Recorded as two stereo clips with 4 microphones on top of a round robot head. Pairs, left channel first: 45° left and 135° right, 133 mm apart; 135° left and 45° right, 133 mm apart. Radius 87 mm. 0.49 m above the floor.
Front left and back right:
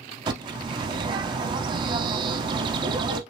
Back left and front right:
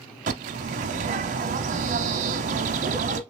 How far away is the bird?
About 0.6 m.